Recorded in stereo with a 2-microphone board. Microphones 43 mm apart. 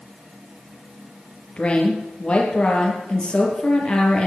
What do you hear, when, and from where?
1.6 s a woman speaking: 25° left (ahead or behind), 4.5 m